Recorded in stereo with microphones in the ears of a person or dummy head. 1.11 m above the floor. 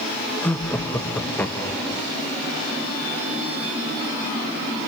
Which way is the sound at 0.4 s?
10° left (ahead or behind).